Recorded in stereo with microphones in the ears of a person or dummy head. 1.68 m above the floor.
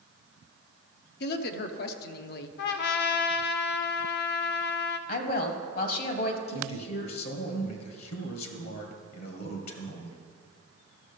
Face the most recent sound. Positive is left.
turn(degrees=55)  # may be behind; listen again after turning